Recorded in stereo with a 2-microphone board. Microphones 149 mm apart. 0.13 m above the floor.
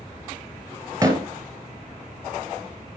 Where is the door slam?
20° right (ahead or behind), 1.4 m.